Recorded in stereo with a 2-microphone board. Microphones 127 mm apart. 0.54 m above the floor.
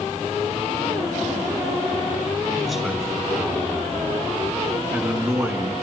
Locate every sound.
2.6 s a man speaking: centre (ahead or behind), 5.5 m; by 5.7 s 20° right (ahead or behind), 6.5 m